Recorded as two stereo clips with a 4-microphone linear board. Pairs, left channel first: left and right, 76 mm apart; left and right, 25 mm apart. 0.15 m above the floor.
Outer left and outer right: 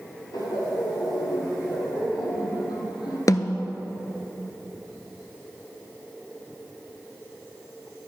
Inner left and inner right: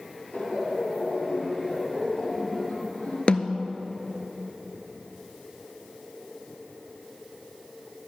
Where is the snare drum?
50° left (ahead or behind), 0.6 m.